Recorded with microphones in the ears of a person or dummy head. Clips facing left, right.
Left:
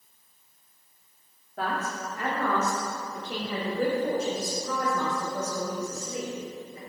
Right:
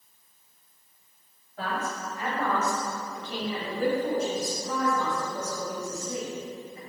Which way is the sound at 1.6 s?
45° left (ahead or behind).